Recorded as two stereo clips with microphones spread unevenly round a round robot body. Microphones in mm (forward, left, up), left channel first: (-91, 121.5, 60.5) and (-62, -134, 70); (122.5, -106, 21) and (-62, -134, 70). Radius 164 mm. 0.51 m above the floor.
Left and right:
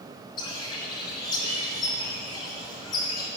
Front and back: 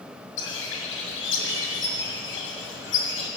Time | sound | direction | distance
0.4 | a bird | 20° left | 1.8 m